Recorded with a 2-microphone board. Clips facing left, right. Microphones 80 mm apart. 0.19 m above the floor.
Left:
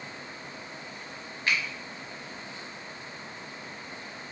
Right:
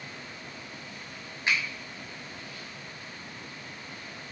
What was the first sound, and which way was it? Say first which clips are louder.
A finger snap: even; 20° right (ahead or behind).